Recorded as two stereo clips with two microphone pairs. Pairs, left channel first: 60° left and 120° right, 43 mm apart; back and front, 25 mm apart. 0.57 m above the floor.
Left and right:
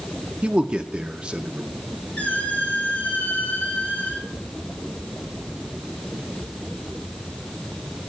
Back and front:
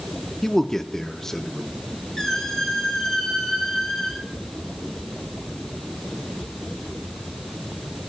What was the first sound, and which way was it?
A man speaking, 140° right.